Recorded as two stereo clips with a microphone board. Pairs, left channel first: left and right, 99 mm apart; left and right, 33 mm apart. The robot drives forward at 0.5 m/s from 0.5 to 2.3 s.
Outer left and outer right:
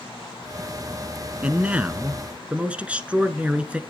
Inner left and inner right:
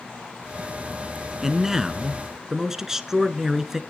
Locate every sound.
1.4 s a man speaking: 15° right (ahead or behind), 1.0 m